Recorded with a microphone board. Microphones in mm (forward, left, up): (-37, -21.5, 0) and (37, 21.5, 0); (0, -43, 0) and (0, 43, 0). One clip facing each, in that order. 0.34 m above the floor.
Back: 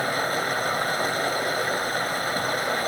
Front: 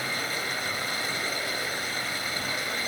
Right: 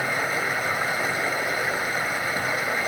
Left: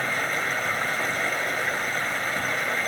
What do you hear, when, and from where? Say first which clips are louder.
0.0 s running water: back 7 dB, right 1 dB; 170° right, 1.5 m